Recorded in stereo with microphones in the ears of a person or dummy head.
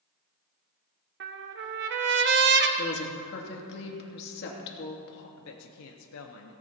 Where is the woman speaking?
55° left (ahead or behind), 3 m.